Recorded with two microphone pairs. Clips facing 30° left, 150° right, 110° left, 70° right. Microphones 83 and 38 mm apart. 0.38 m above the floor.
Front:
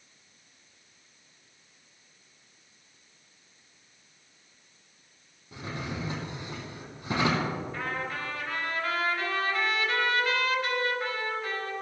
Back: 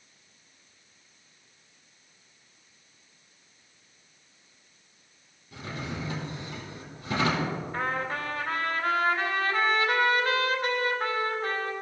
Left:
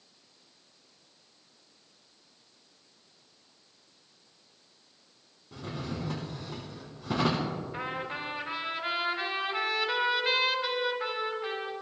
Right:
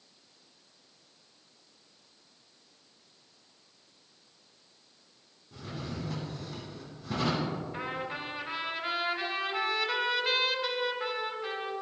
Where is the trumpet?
175° right, 1.9 m.